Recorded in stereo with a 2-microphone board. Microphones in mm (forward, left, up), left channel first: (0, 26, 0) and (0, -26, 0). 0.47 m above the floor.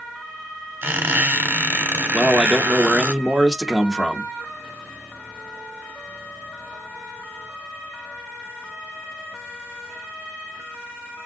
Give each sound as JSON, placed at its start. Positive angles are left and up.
{"t": 0.8, "sound": "a squeak", "side_deg": -50, "distance_m": 1.1}
{"t": 2.1, "sound": "a man speaking", "side_deg": -15, "distance_m": 0.7}